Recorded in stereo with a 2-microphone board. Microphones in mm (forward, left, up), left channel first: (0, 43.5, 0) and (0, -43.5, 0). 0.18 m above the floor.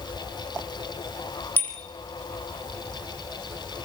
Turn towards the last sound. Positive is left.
turn(degrees=25)  # may be behind; listen again after turning